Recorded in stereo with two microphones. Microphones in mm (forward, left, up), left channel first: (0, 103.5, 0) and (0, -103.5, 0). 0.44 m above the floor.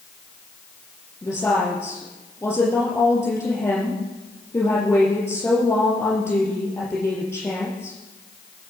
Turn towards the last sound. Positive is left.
turn(degrees=10)  # may be behind; listen again after turning